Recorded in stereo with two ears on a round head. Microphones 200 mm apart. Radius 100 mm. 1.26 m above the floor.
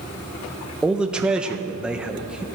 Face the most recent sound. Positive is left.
turn(degrees=-5)  # may be behind; listen again after turning